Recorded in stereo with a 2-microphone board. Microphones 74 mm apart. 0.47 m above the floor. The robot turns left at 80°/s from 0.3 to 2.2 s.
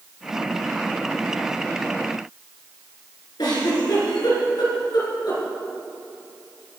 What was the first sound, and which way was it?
A giggle, 70° left (ahead or behind).